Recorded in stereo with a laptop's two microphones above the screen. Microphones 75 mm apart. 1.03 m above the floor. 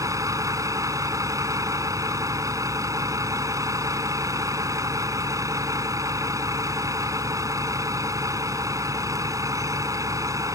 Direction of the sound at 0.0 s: 45° right (ahead or behind).